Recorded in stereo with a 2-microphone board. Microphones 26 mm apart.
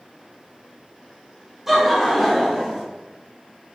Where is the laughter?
10° right (ahead or behind), 0.7 m; by 2.8 s centre (ahead or behind), 1.3 m.